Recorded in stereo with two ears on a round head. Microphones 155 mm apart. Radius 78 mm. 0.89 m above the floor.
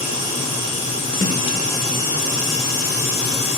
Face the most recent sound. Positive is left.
turn(degrees=20)  # may be behind; listen again after turning